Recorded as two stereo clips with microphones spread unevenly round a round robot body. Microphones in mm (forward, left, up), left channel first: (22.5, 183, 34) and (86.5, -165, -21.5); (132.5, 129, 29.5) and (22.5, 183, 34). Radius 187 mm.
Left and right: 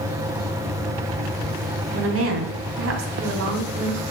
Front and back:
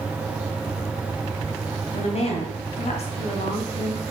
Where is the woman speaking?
45° right, 2.5 m.